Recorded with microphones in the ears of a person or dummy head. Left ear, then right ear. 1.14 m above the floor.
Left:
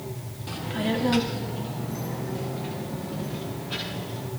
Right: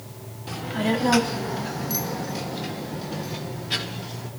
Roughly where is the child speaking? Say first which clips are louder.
Right 3 dB; centre.